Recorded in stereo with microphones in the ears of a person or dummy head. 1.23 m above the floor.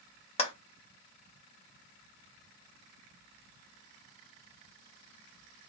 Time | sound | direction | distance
0.4 | a clap | 40° left (ahead or behind) | 0.7 m